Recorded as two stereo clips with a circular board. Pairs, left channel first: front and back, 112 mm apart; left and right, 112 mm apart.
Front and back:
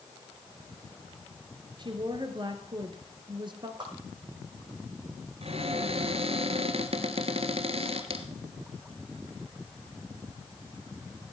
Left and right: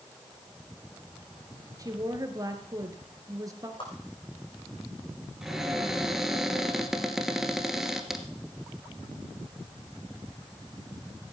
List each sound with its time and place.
1.8 s a woman speaking: 145° right, 2.5 m
3.8 s a whoosh: 130° left, 5 m
5.4 s a cupboard door: 175° right, 1.6 m